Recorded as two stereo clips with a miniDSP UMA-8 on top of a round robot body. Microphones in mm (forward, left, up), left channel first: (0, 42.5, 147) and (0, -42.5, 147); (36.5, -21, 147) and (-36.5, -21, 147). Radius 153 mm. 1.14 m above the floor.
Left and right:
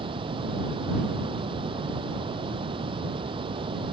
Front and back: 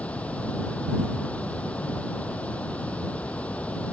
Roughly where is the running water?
Right.